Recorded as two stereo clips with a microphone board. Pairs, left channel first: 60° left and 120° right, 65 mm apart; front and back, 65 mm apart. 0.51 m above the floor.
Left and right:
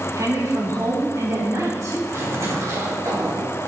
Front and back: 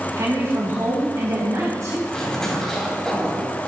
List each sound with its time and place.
0.2 s a woman speaking: 150° right, 3.5 m
2.1 s a zipper: 80° right, 2.5 m